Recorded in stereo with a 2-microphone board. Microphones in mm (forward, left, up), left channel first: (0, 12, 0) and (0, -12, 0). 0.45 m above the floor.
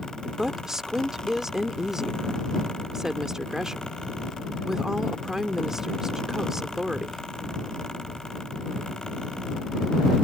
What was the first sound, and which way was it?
A woman speaking, 25° right (ahead or behind).